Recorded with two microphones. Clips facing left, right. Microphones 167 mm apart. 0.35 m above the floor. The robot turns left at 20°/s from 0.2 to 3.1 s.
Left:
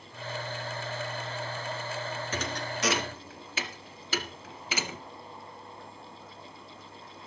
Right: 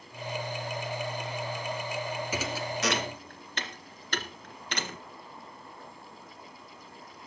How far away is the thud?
About 1.5 m.